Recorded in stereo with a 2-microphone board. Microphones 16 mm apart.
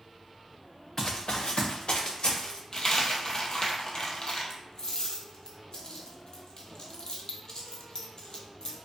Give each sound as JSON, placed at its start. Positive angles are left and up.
{"t": 1.0, "sound": "running footsteps", "side_deg": 35, "distance_m": 0.5}
{"t": 2.7, "sound": "a dropped coin", "side_deg": 40, "distance_m": 0.5}